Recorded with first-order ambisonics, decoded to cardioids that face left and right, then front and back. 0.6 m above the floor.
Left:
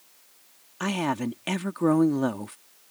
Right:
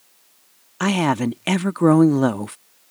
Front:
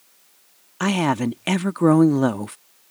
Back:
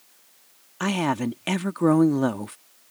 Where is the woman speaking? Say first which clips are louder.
Right 7 dB, front 3 dB; 65° right.